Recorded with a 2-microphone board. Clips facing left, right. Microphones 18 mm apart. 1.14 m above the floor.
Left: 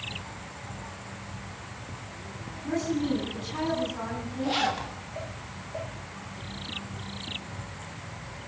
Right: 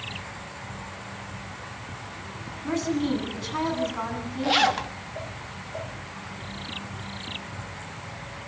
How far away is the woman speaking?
About 9 m.